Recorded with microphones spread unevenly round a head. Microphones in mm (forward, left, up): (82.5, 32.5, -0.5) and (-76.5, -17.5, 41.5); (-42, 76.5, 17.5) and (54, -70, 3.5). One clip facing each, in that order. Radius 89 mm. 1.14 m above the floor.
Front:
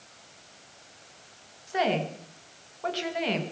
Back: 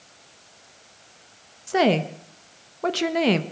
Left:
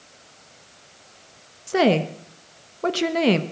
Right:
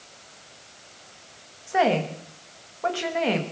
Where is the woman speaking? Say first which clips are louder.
Back 7 dB, left 3 dB; 170° left, 1.0 m.